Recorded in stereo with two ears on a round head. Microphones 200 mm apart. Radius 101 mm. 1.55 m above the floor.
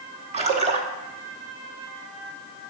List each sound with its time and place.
0.3 s a splash: 30° right (ahead or behind), 1.1 m